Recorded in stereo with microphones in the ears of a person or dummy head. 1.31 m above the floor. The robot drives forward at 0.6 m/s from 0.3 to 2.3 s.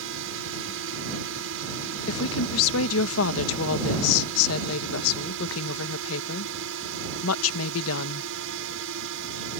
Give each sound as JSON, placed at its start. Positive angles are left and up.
{"t": 0.0, "sound": "a drone", "side_deg": -70}
{"t": 2.1, "sound": "a woman speaking", "side_deg": 75}